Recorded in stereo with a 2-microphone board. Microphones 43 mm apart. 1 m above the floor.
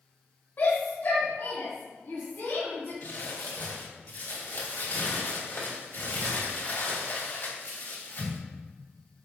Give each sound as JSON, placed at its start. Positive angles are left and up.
{"t": 0.6, "sound": "a shout", "side_deg": 55, "distance_m": 2.5}
{"t": 3.0, "sound": "crumpling", "side_deg": 65, "distance_m": 2.5}